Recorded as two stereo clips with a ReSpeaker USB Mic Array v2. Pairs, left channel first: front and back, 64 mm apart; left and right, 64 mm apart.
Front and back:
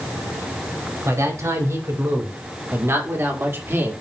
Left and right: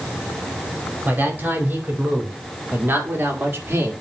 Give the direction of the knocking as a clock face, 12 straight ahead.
I don't hear knocking.